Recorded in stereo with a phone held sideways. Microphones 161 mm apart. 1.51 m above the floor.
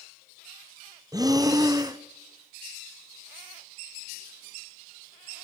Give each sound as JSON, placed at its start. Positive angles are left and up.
{"t": 1.1, "sound": "breathing", "side_deg": -25, "distance_m": 0.8}